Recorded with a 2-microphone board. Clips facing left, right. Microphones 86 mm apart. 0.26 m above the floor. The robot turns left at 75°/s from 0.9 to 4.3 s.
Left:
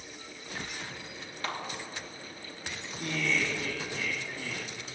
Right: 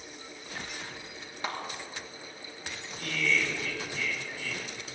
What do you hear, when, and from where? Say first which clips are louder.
1.4 s a clap: right 1 dB; 20° right (ahead or behind), 3 m; by 1.6 s 10° right (ahead or behind), 3 m
3.0 s laughter: right 1 dB; 155° left, 1.9 m; by 4.6 s 55° left, 1.9 m